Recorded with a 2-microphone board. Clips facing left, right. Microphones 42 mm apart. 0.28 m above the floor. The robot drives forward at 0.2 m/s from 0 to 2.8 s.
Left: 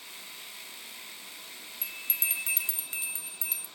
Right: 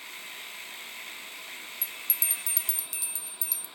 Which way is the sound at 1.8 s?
40° left (ahead or behind).